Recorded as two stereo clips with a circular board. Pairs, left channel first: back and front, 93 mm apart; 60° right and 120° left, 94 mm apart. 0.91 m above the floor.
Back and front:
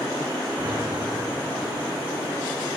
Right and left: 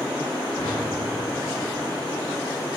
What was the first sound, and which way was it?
A whoosh, 55° right.